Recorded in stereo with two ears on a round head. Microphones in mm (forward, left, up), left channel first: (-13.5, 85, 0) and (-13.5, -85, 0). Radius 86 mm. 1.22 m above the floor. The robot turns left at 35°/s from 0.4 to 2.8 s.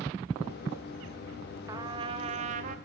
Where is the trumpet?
25° right, 0.6 m; by 2.8 s 60° right, 0.6 m.